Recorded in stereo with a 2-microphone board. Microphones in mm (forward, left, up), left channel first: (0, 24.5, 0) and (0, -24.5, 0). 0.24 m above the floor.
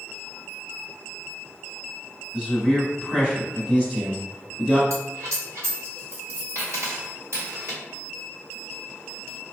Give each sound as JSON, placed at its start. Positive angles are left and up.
{"t": 2.3, "sound": "a man speaking", "side_deg": -20, "distance_m": 1.4}
{"t": 4.9, "sound": "a dropped coin", "side_deg": -65, "distance_m": 1.7}